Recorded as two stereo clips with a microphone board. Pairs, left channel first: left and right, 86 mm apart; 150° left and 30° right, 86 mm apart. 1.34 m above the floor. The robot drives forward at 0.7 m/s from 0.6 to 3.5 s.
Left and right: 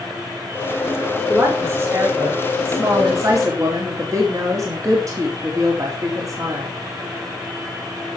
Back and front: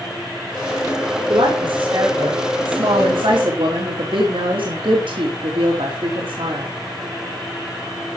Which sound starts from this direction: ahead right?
A woman speaking, at 1.3 s.